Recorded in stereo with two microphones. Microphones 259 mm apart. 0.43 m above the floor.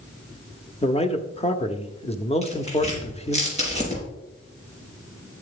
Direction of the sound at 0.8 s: 25° left (ahead or behind).